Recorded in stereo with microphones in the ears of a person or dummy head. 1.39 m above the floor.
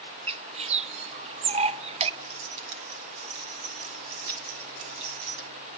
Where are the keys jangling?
80° right, 3 m.